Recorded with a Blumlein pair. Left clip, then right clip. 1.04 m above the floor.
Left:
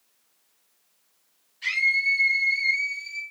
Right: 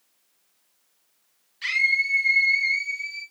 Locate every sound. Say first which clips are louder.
1.6 s a scream: right 1 dB; 55° right, 1.9 m; by 3.2 s 15° right, 2 m